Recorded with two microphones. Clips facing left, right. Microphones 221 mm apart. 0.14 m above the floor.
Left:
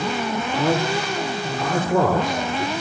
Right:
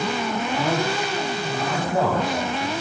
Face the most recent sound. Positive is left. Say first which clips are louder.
# left 4 dB
turn(degrees=45)  # may be behind; listen again after turning